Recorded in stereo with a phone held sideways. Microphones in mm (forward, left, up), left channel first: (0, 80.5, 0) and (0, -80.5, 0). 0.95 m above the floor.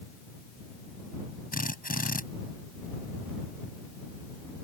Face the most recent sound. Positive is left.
turn(degrees=70)  # may be behind; listen again after turning